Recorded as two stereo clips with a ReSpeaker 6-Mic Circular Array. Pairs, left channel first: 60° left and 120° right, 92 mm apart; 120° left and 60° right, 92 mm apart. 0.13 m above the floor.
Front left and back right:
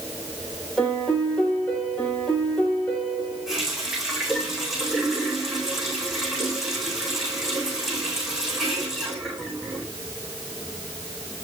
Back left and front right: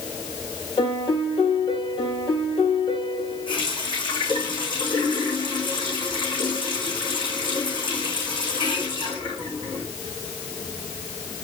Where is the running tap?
150° left, 5 m.